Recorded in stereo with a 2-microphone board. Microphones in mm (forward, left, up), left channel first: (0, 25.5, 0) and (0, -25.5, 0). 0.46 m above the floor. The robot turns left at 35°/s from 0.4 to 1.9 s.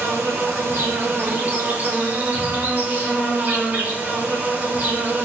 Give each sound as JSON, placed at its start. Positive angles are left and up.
{"t": 0.0, "sound": "an insect", "azimuth_deg": -85, "distance_m": 0.8}